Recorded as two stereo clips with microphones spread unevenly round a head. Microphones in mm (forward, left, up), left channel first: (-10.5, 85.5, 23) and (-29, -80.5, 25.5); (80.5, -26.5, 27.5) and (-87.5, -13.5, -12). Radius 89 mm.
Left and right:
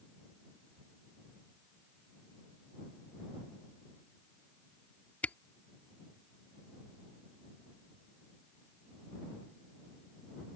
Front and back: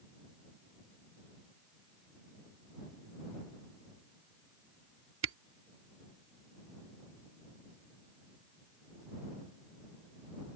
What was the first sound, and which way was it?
A camera shutter, 165° left.